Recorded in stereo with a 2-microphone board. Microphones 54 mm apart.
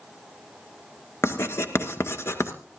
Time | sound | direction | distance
1.2 | writing | 50° left (ahead or behind) | 2.0 m